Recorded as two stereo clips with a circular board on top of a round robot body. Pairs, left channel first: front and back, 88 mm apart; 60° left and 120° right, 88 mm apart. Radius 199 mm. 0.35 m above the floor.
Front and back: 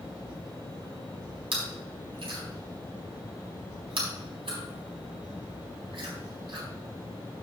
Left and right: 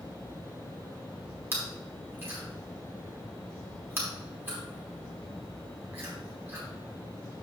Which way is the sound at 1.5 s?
175° left.